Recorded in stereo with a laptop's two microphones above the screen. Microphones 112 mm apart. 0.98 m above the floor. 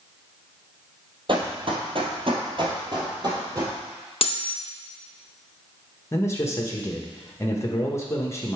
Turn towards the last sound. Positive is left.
turn(degrees=25)  # may be behind; listen again after turning